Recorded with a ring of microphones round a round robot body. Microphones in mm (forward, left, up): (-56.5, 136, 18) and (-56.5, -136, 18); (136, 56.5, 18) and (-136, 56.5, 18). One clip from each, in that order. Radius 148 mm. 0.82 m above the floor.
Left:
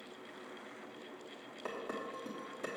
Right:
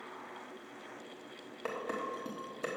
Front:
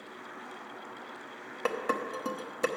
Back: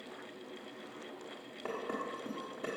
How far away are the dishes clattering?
About 0.9 m.